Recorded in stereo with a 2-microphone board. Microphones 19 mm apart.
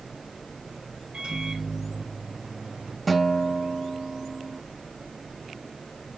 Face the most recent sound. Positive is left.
turn(degrees=5)  # may be behind; listen again after turning